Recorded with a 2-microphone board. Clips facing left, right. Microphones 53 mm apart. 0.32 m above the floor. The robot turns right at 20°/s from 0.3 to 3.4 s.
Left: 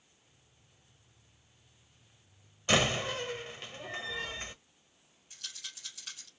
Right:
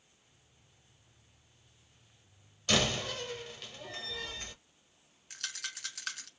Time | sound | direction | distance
2.7 | a door slam | 20° left (ahead or behind) | 0.7 m
5.3 | a rattle | 75° right (ahead or behind) | 1.3 m